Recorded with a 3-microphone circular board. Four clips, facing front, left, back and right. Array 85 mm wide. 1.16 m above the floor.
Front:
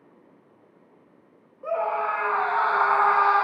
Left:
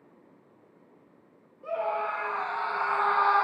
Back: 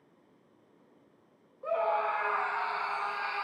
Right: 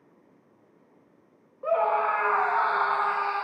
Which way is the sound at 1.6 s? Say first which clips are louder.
Right 6 dB, front 4 dB; 75° right.